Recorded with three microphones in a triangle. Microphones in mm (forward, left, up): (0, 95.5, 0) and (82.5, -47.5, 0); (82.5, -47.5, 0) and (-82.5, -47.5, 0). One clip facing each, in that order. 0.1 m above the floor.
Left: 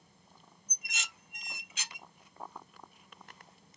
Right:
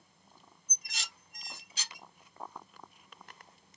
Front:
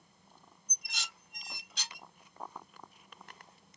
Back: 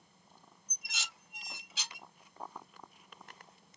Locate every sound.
0.7 s dishes clattering: 95° right, 1.0 m